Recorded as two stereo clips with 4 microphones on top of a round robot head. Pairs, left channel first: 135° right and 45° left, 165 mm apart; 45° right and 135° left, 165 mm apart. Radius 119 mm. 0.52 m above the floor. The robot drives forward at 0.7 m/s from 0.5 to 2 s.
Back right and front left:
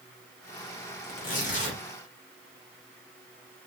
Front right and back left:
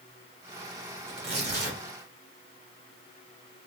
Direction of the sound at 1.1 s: 175° right.